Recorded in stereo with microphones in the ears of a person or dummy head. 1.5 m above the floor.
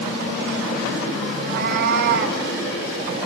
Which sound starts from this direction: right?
A cat meowing, at 1.3 s.